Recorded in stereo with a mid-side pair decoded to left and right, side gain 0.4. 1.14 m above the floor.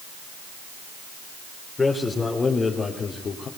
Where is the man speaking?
30° left, 4 m; by 3.5 s 55° left, 3.5 m.